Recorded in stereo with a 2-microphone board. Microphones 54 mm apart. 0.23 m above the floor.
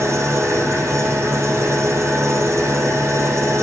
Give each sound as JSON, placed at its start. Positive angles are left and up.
{"t": 0.0, "sound": "an engine running", "side_deg": -60, "distance_m": 4.5}